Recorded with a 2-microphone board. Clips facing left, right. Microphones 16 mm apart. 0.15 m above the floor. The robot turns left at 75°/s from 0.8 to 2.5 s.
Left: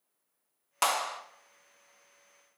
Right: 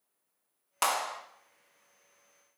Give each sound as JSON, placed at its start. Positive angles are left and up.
{"t": 0.8, "sound": "a clap", "side_deg": 5, "distance_m": 1.2}